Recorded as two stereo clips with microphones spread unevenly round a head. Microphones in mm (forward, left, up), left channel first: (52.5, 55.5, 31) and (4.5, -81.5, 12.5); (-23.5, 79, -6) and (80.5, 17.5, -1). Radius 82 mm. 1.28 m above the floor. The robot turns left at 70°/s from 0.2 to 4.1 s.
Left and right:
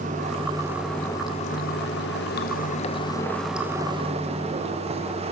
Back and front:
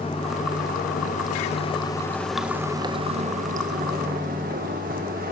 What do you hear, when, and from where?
0.0 s running water: 150° right, 1.3 m; by 5.3 s 65° right, 1.3 m